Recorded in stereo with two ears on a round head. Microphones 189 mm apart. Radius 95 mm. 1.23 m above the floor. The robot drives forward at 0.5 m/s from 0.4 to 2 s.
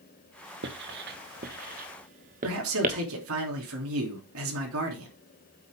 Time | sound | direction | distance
0.6 | writing | 55° right (ahead or behind) | 1.3 m
2.4 | a man speaking | 75° right (ahead or behind) | 3 m